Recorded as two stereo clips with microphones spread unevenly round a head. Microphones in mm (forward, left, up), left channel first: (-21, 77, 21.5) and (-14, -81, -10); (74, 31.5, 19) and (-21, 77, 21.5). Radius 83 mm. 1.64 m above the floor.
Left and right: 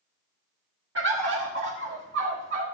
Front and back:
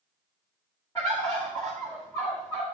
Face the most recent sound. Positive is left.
turn(degrees=-100)